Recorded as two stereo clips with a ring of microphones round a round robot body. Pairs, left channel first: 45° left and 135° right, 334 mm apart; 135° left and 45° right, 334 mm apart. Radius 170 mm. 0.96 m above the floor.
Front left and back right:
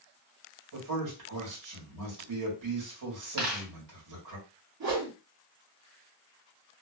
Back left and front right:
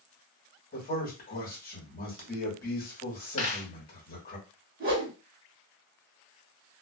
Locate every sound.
0.7 s a man speaking: 160° right, 1.5 m
3.4 s a dropped coin: 155° right, 1.5 m
4.8 s a whoosh: 105° right, 1.4 m